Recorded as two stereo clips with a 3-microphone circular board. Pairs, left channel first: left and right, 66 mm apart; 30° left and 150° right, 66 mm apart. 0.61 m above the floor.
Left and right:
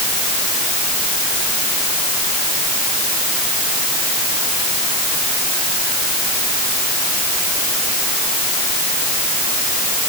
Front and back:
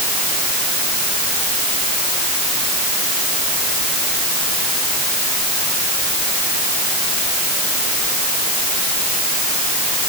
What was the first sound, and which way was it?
Only background noise.